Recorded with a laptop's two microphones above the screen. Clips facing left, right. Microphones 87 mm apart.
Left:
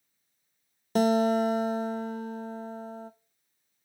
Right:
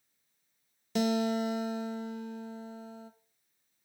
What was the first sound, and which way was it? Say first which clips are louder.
A guitar: left 6 dB; 40° left (ahead or behind).